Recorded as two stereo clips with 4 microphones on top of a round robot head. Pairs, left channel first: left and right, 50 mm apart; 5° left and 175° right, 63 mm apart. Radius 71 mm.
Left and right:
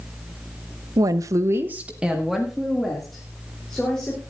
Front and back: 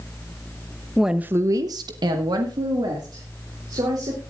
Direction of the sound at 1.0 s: 85° right.